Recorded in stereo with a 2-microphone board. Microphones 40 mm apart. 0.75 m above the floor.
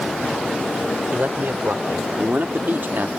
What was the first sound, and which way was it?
A man speaking, 55° right (ahead or behind).